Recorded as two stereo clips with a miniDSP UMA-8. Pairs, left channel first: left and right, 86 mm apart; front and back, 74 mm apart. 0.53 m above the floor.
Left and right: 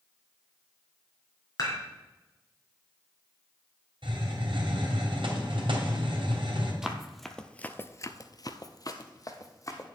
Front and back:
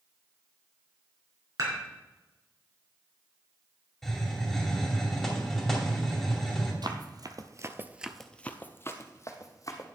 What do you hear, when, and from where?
1.6 s dishes clattering: 140° left, 4 m
4.0 s a hiss: 85° right, 2.5 m
6.8 s running footsteps: 175° right, 1.2 m; by 9.8 s 40° left, 1.7 m